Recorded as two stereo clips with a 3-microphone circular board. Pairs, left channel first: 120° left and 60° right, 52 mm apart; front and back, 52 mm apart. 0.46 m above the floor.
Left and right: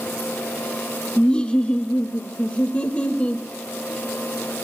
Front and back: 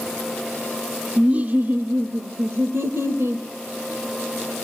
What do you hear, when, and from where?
1.2 s laughter: 155° left, 0.8 m; by 3.5 s 175° right, 1.8 m